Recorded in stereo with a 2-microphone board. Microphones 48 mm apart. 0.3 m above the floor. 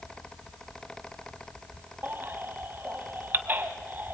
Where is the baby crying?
45° right (ahead or behind), 1.3 m.